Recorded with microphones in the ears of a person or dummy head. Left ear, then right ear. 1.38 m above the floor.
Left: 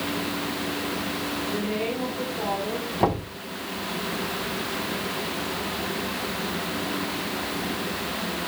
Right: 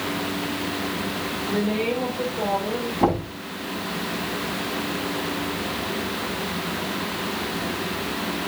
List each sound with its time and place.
1.4 s a woman speaking: 5° right (ahead or behind), 6.5 m
3.0 s knocking: 30° left (ahead or behind), 10 m